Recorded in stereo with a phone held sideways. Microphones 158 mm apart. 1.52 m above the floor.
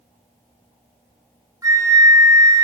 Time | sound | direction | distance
1.6 | a flute | 20° right (ahead or behind) | 0.7 m